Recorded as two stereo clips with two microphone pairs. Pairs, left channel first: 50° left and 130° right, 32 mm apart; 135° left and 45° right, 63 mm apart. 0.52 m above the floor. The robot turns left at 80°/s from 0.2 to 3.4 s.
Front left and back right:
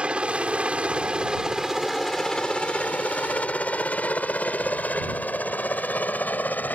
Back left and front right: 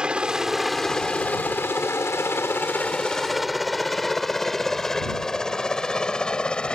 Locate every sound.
0.0 s a helicopter: 110° right; by 6.8 s 60° left